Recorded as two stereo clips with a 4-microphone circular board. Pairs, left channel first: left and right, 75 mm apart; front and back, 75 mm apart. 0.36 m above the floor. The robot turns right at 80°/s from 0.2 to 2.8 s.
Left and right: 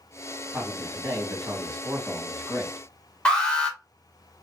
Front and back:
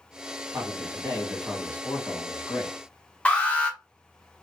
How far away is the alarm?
About 1.7 m.